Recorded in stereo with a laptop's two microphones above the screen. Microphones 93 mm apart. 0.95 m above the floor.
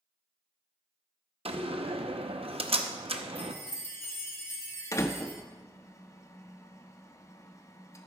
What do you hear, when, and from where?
1.4 s a door slam: 80° right, 0.8 m
3.4 s a chime: 25° left (ahead or behind), 2.5 m
4.9 s a door slam: 30° left (ahead or behind), 1.1 m